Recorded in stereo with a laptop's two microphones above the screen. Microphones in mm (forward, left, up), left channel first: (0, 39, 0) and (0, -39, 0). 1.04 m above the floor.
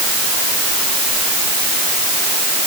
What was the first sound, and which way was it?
Only background noise.